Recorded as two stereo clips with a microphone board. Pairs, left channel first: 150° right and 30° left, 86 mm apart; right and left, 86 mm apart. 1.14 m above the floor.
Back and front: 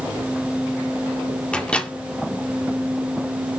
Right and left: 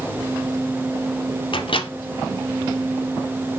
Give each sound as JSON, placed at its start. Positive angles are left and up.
{"t": 1.5, "sound": "a microwave", "azimuth_deg": -75, "distance_m": 2.0}